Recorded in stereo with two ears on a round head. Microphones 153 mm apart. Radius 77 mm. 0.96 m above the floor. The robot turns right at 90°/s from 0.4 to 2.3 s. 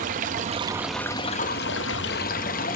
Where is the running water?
45° right, 0.7 m; by 2.8 s 125° left, 0.7 m.